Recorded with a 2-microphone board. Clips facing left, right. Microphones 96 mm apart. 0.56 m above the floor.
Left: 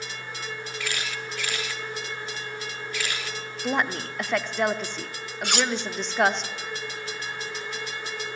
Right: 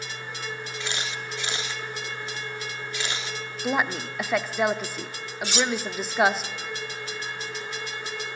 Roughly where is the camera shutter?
Right.